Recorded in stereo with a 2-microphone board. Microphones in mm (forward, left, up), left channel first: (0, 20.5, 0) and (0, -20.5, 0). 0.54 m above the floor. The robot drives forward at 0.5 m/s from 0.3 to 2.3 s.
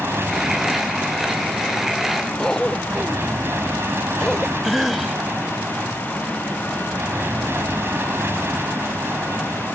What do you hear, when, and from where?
0.0 s an aircraft: 70° right (ahead or behind); by 9.8 s 65° right (ahead or behind)
2.4 s a cough: 15° left (ahead or behind)
4.6 s a cough: 5° right (ahead or behind)